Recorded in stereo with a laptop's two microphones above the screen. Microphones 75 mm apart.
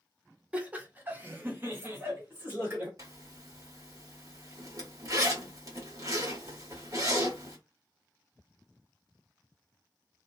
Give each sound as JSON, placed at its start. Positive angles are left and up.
{"t": 0.5, "sound": "laughter", "side_deg": -15, "distance_m": 0.9}
{"t": 3.0, "sound": "a zipper", "side_deg": -50, "distance_m": 1.2}